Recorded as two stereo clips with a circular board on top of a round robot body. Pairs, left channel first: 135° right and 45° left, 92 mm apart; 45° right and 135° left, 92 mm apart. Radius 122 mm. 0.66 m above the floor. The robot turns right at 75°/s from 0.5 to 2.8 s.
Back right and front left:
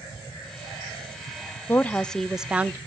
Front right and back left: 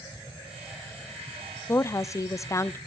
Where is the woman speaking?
90° right, 0.5 m; by 2.8 s 5° right, 0.5 m.